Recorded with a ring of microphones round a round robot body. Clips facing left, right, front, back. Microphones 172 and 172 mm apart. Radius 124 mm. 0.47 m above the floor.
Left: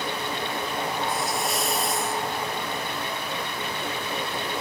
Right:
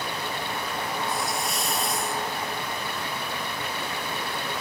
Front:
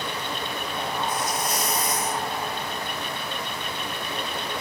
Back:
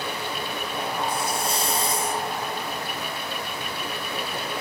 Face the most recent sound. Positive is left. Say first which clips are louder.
# left 2 dB, even
turn(degrees=180)